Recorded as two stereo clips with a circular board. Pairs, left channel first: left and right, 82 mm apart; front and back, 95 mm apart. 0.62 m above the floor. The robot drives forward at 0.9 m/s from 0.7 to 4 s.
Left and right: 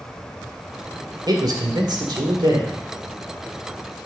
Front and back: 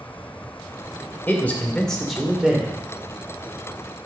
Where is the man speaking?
65° right, 2.5 m; by 2.7 s 105° right, 2 m.